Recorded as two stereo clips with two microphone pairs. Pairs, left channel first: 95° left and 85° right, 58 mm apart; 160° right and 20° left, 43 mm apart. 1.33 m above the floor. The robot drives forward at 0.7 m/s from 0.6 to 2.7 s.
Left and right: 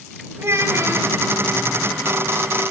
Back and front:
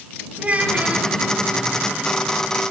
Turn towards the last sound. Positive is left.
turn(degrees=-45)